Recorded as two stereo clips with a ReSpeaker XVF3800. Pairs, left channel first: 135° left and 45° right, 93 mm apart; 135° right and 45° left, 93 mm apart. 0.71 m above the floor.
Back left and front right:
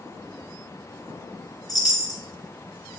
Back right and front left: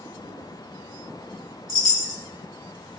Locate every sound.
1.7 s a chime: 90° left, 1.9 m